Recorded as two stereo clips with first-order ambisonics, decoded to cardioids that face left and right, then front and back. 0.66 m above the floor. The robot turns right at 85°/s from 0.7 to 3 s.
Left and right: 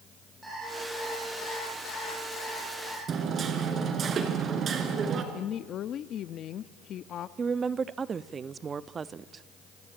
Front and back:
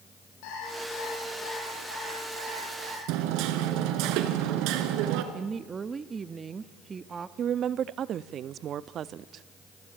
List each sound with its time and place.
0.4 s an alarm clock: 5° right, 10 m; by 3.0 s 170° right, 10 m
3.1 s hammering: 155° right, 2.5 m
5.3 s a woman speaking: 120° left, 0.7 m
7.4 s a woman speaking: 150° right, 0.6 m